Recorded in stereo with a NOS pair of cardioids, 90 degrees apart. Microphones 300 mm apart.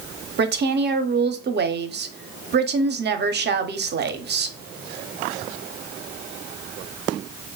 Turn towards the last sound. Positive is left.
turn(degrees=-35)